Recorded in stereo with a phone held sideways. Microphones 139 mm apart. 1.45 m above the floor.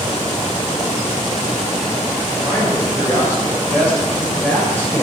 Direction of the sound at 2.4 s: 15° left (ahead or behind).